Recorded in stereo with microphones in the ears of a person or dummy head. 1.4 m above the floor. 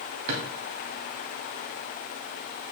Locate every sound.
0.3 s a drawer: 45° right (ahead or behind), 2 m